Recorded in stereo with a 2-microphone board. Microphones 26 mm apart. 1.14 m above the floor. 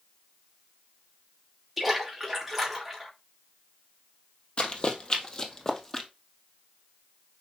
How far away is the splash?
About 3.5 m.